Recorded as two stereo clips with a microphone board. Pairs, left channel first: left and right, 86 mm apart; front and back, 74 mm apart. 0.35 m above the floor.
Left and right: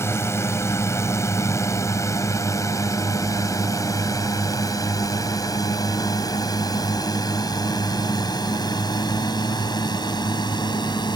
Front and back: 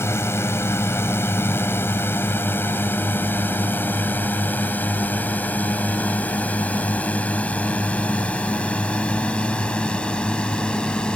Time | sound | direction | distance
0.0 | a drone | 40° left | ?